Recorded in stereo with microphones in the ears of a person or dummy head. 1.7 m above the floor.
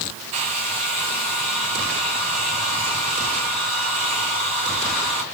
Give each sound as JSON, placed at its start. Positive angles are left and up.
{"t": 0.3, "sound": "a hair dryer", "side_deg": -35, "distance_m": 1.7}